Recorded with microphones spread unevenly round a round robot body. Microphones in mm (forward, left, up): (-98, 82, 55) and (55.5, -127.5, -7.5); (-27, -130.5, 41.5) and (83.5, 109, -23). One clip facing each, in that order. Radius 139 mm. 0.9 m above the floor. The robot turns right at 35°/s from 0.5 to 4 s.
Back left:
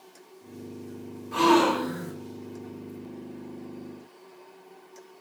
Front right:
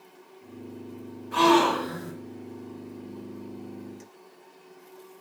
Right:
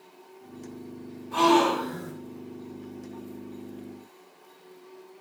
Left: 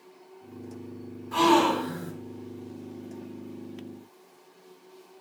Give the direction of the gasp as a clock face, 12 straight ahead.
11 o'clock.